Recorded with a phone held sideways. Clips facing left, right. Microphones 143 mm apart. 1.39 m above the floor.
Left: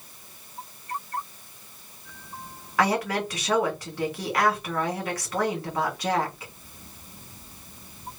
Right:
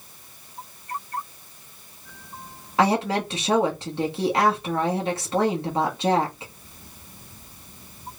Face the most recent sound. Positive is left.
turn(degrees=-25)  # may be behind; listen again after turning